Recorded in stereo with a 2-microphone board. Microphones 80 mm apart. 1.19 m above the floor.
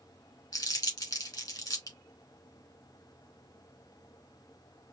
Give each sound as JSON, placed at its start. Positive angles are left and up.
{"t": 0.5, "sound": "crumpling", "side_deg": 50, "distance_m": 1.9}